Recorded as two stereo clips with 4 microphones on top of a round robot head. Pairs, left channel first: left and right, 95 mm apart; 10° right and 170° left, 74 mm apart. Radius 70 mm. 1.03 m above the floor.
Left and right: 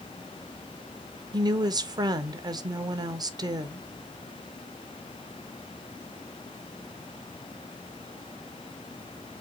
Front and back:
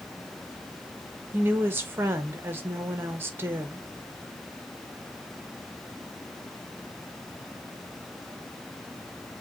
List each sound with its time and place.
1.3 s a woman speaking: 130° right, 0.7 m